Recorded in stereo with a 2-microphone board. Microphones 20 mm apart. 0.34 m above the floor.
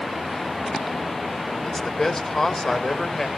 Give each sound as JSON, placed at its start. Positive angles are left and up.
{"t": 1.6, "sound": "a man speaking", "side_deg": 25, "distance_m": 1.4}